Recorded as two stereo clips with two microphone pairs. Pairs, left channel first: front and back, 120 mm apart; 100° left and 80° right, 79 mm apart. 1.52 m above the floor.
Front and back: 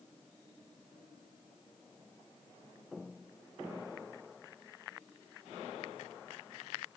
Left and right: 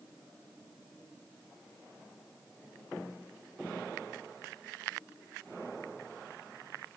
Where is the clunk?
No clunk in this recording.